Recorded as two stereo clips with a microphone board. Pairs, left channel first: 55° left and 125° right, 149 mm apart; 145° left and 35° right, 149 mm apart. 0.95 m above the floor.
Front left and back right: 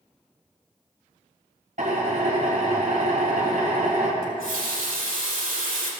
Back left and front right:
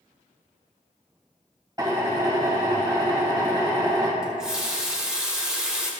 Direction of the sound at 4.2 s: 120° right.